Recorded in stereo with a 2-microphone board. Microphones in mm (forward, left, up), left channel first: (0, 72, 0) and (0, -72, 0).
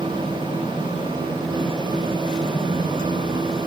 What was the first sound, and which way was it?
Only background noise.